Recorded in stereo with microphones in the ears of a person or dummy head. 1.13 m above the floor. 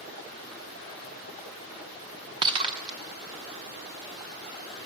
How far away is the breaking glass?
About 0.7 m.